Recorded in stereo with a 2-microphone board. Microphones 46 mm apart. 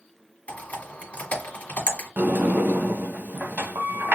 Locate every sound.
0.5 s typing on a keyboard: 35° left (ahead or behind), 1.5 m
2.2 s a sliding door: 45° right (ahead or behind), 0.7 m